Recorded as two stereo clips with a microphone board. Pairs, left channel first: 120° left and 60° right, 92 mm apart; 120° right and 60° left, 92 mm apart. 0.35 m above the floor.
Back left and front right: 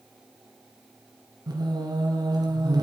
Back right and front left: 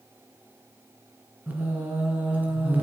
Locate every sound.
1.5 s singing: 15° right, 1.9 m